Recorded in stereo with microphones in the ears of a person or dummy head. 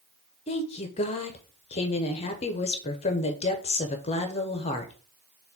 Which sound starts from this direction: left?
A woman speaking, at 0.5 s.